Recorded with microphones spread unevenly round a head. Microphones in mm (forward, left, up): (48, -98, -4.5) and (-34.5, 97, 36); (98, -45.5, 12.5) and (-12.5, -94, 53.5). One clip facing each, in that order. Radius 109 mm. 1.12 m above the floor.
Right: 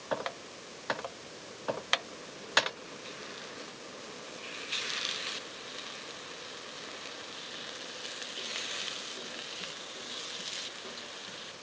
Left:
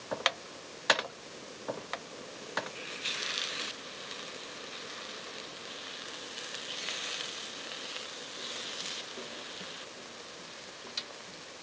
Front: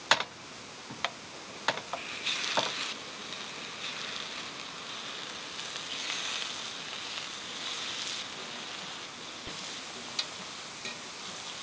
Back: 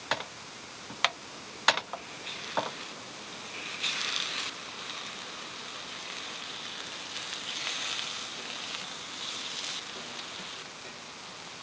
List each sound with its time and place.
Only background noise.